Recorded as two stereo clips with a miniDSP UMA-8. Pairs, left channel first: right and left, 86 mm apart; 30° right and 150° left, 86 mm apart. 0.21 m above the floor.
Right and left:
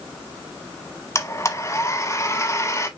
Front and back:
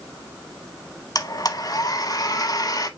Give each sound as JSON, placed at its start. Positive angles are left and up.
{"t": 1.1, "sound": "a blender", "azimuth_deg": -50, "distance_m": 0.9}